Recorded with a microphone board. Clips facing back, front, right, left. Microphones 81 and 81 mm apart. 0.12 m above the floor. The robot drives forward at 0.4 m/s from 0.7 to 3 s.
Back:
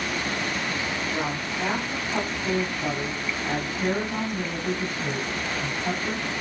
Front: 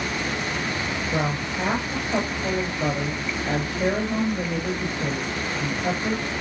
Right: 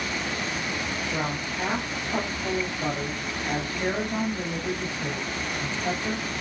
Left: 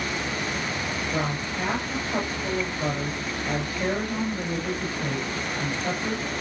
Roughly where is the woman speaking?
Ahead.